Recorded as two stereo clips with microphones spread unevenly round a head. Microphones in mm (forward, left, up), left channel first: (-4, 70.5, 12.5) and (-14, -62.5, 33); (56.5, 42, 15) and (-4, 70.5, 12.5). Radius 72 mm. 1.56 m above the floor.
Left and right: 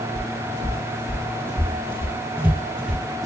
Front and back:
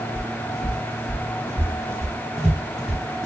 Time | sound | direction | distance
0.1 | footsteps | 145° right | 2.5 m